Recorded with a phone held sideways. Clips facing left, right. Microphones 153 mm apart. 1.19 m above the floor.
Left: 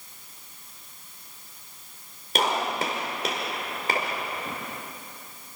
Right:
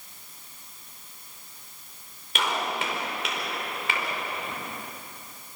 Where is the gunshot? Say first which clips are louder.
Left 3 dB; 40° left (ahead or behind), 5 m.